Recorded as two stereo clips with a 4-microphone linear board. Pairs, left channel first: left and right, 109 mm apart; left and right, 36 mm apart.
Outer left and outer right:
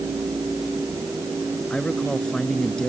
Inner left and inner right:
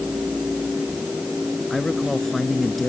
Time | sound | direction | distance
1.7 | a man speaking | 5° left (ahead or behind) | ?